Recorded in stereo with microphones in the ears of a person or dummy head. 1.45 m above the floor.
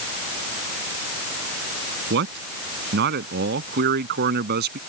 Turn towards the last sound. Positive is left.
turn(degrees=-60)  # may be behind; listen again after turning